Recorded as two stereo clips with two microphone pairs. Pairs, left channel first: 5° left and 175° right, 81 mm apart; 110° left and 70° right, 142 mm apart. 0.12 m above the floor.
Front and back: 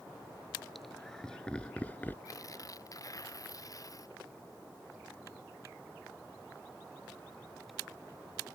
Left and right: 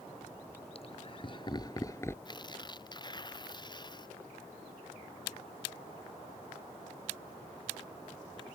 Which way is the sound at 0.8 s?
95° left.